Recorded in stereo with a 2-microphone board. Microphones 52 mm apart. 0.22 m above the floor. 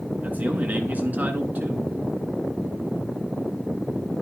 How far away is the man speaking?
About 2.5 m.